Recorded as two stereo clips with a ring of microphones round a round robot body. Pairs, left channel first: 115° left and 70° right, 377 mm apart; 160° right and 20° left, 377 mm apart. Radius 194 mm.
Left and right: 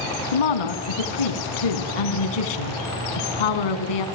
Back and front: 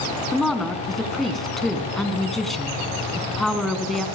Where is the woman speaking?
115° left, 3.5 m.